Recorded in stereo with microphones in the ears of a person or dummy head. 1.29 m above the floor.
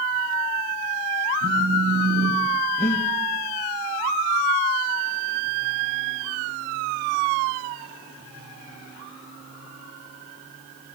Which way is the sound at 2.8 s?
15° left (ahead or behind).